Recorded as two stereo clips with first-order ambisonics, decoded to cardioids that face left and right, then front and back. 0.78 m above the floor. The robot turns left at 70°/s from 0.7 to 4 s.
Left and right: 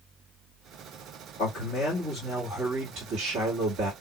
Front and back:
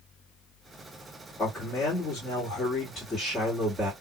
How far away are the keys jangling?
No keys jangling in this recording.